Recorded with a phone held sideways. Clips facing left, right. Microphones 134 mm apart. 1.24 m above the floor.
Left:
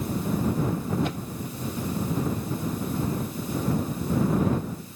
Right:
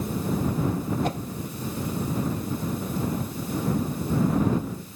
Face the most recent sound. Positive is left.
turn(degrees=-40)  # may be behind; listen again after turning